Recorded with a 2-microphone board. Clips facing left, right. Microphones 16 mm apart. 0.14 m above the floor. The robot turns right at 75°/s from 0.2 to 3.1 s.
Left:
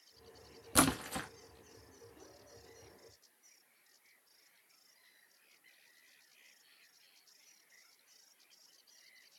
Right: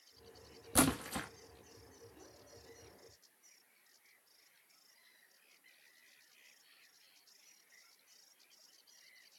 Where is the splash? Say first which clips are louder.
Left 1 dB; 25° left (ahead or behind), 1.0 m; by 1.3 s centre (ahead or behind), 1.0 m.